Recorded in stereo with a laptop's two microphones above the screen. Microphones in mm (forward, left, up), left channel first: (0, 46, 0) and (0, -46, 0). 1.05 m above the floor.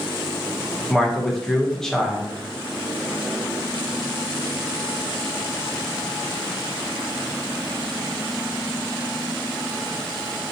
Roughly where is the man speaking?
Centre.